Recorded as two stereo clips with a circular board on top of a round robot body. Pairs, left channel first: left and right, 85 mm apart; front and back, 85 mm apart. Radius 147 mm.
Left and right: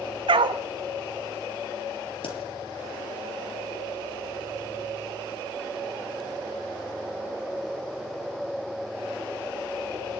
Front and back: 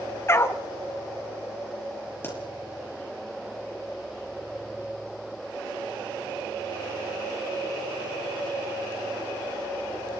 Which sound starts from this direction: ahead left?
A pop, at 2.2 s.